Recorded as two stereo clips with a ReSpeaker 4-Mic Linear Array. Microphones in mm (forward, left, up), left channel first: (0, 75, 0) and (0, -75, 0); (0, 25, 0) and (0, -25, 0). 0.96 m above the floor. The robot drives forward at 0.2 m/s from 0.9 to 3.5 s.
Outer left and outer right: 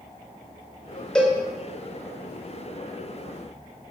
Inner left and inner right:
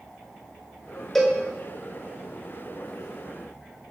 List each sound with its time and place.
1.1 s a cowbell: 5° left (ahead or behind), 0.9 m